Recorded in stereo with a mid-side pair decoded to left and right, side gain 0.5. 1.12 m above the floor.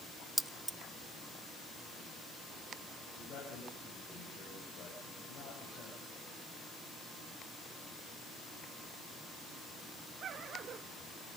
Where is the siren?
No siren in this recording.